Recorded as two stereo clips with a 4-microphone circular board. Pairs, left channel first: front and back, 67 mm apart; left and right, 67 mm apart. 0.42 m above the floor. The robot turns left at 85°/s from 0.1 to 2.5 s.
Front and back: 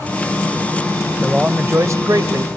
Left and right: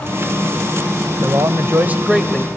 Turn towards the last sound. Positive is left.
turn(degrees=160)